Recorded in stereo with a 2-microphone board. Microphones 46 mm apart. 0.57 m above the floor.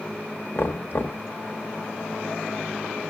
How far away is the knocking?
About 1.4 m.